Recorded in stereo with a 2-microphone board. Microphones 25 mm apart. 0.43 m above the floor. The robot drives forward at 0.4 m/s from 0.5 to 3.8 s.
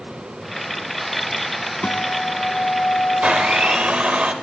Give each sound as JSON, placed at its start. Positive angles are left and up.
{"t": 1.8, "sound": "a guitar", "side_deg": 50, "distance_m": 0.7}
{"t": 3.2, "sound": "a blender", "side_deg": -55, "distance_m": 1.0}